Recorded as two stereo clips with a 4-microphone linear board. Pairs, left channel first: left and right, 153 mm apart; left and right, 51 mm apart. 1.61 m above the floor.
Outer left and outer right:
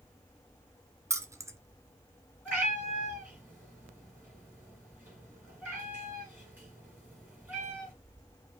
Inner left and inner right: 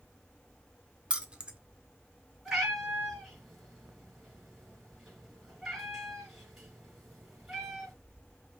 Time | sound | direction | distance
1.1 | keys jangling | 20° right (ahead or behind) | 0.5 m
2.5 | a cat meowing | 10° right (ahead or behind) | 3 m